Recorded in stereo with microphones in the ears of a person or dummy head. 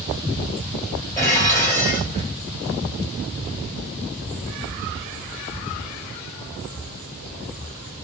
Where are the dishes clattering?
20° left (ahead or behind), 3.5 m.